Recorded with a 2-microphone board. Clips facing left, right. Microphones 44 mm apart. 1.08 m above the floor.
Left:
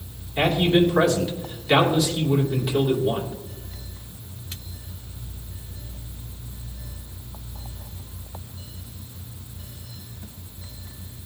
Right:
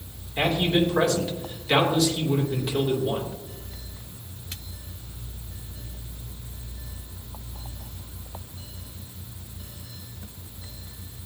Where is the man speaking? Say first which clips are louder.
Left 3 dB; 5° left (ahead or behind), 2.5 m.